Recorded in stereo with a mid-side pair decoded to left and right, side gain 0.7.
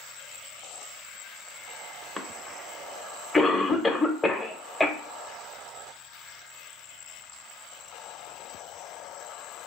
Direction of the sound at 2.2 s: 10° left.